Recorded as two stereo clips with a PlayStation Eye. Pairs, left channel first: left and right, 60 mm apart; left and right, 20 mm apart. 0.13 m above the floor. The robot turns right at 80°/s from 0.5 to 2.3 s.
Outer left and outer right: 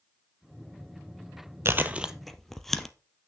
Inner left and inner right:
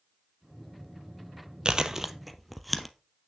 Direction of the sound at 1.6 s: 45° right (ahead or behind).